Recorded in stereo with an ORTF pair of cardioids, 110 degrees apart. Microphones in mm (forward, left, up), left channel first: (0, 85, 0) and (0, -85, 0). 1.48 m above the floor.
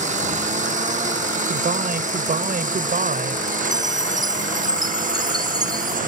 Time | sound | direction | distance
0.0 | a lawn mower | 50° right | ?
1.5 | a man speaking | 60° right | ?
3.7 | a chime | 25° right | ?